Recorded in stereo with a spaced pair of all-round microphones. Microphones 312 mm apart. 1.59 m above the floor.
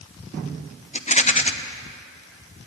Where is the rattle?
20° left (ahead or behind), 0.9 m.